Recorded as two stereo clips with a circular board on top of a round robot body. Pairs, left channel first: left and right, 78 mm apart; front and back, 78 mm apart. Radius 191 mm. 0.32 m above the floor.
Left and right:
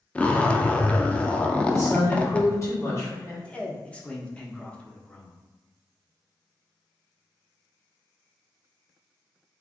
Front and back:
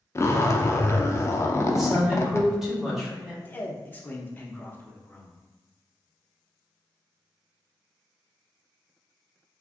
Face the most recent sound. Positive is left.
turn(degrees=35)